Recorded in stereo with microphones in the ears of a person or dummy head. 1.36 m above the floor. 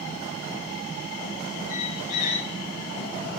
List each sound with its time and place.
1.7 s a squeak: 55° left (ahead or behind), 1.0 m